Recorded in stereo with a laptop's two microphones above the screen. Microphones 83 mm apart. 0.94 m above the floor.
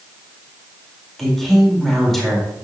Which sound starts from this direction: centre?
A woman speaking, at 1.2 s.